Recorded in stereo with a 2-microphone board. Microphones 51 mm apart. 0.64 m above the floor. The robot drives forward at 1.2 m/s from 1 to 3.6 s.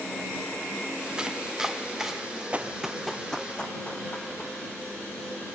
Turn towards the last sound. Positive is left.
turn(degrees=25)  # may be behind; listen again after turning